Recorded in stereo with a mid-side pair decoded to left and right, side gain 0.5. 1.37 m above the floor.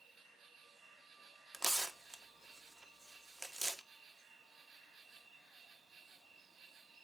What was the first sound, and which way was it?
An insect, 45° right.